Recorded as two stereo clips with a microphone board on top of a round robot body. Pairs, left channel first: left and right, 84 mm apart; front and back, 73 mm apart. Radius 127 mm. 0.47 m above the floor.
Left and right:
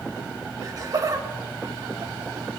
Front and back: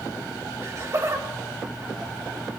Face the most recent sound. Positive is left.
turn(degrees=-135)